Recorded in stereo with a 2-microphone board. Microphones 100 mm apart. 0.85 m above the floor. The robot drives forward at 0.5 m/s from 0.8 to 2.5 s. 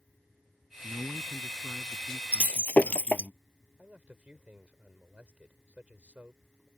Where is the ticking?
No ticking in this recording.